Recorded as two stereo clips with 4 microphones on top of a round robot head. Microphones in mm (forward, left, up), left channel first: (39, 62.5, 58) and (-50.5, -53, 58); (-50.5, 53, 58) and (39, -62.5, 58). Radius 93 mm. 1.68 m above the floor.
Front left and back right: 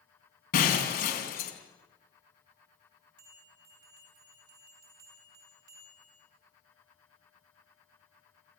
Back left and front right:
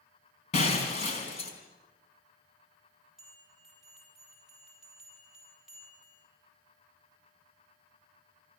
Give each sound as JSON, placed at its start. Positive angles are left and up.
{"t": 0.5, "sound": "breaking glass", "azimuth_deg": 80, "distance_m": 4.5}
{"t": 3.2, "sound": "a bell", "azimuth_deg": -140, "distance_m": 8.5}